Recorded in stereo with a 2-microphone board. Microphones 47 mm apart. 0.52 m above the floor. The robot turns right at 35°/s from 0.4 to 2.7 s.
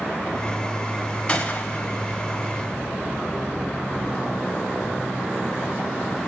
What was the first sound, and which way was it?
A gunshot, 20° left (ahead or behind).